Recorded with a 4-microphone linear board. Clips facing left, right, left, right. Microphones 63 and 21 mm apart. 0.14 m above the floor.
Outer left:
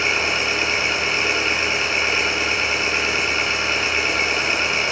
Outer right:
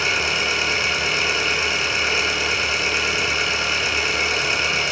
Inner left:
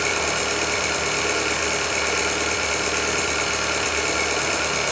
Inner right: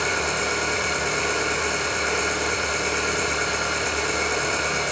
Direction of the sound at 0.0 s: 35° left (ahead or behind).